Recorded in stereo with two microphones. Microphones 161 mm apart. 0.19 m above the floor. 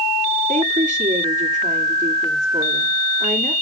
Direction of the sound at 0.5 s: 50° right (ahead or behind).